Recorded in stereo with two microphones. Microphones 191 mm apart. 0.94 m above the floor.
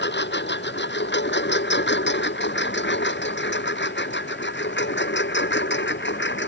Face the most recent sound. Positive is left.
turn(degrees=85)